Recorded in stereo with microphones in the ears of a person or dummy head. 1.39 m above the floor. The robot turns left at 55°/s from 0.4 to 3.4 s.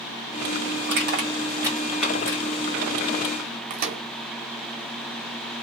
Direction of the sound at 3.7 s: 45° right (ahead or behind).